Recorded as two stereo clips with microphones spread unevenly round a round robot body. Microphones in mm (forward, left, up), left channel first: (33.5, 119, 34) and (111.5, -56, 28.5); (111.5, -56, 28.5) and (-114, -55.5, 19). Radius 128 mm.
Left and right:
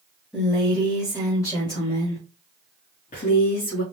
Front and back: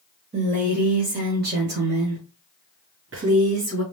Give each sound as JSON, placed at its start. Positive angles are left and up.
{"t": 0.3, "sound": "a woman speaking", "azimuth_deg": -150, "distance_m": 1.4}